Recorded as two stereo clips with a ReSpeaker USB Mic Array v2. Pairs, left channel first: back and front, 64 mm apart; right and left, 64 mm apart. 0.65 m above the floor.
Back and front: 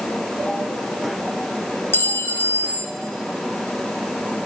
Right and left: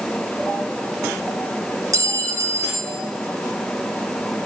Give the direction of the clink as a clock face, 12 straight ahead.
8 o'clock.